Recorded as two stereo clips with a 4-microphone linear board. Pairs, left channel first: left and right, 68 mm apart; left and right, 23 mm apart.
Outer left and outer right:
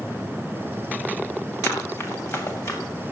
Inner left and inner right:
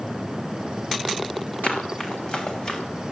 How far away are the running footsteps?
About 6 m.